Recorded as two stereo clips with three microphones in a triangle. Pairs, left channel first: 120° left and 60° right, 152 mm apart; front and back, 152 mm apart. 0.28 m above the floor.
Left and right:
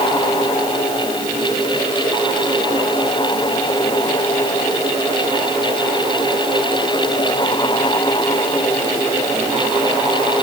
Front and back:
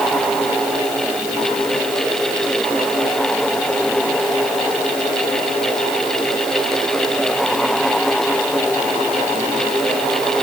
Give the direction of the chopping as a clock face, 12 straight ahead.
No chopping in this recording.